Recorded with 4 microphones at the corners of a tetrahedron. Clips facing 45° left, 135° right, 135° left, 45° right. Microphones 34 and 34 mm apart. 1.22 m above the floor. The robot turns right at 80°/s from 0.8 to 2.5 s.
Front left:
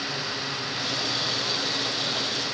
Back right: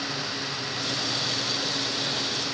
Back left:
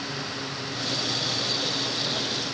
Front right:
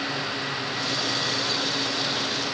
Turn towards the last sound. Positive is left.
No sound to turn to.